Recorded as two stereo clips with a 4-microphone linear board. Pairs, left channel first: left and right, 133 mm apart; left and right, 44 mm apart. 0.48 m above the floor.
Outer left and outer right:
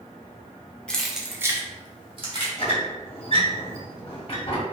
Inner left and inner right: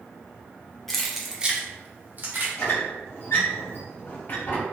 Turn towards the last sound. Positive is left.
turn(degrees=45)  # may be behind; listen again after turning